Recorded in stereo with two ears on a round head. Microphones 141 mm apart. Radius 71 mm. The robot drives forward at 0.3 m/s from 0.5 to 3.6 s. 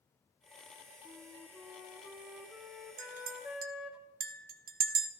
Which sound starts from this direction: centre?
A flute, at 1.1 s.